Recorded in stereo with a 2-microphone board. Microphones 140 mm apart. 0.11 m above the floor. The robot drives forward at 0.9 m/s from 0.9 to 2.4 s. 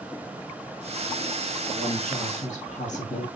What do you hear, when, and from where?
1.7 s a woman speaking: 60° left (ahead or behind), 2.5 m